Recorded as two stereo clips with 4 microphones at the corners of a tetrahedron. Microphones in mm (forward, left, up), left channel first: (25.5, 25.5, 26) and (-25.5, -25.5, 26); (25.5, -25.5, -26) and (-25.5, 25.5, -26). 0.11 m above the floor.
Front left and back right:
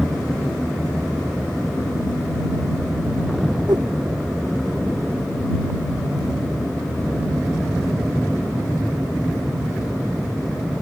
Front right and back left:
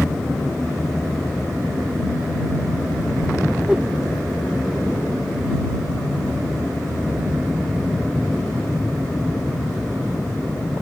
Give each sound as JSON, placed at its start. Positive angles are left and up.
{"t": 3.7, "sound": "a whoosh", "azimuth_deg": -145}